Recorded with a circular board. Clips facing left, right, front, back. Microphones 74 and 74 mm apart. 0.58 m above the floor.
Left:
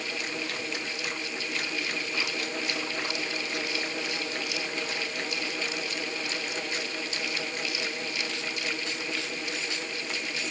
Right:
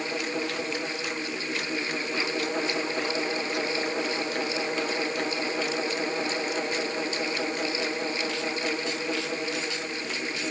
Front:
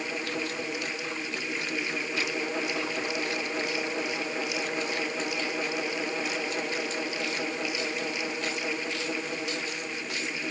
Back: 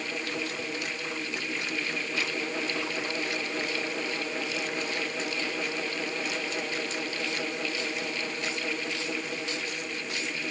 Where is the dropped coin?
I don't hear a dropped coin.